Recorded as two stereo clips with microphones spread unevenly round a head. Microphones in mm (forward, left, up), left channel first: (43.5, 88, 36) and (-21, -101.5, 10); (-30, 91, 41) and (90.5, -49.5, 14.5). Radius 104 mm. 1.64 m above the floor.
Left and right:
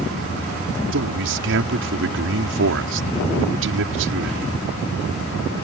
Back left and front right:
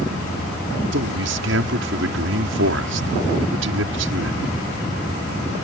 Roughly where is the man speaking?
Right.